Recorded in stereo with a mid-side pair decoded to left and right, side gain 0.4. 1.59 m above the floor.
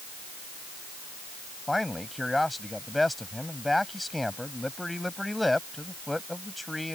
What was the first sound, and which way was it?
A man speaking, 10° left.